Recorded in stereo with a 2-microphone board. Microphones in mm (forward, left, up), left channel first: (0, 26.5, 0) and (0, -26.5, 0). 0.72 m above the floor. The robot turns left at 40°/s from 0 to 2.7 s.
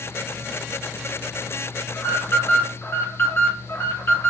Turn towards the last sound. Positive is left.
turn(degrees=80)